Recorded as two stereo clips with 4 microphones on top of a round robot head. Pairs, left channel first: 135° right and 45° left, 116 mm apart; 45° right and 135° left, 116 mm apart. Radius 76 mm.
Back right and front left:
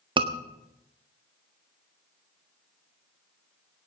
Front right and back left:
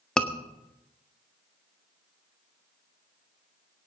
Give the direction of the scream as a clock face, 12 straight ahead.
11 o'clock.